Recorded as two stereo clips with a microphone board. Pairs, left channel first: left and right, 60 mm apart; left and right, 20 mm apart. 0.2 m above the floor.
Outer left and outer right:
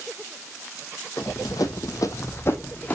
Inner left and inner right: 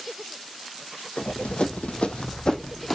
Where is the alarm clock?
I don't hear an alarm clock.